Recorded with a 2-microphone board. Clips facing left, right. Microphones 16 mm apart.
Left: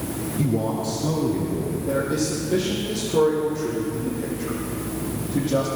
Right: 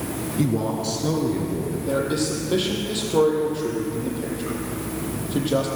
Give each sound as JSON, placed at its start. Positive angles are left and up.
{"t": 0.4, "sound": "a man speaking", "side_deg": -25, "distance_m": 2.5}
{"t": 1.9, "sound": "a man speaking", "side_deg": -75, "distance_m": 7.5}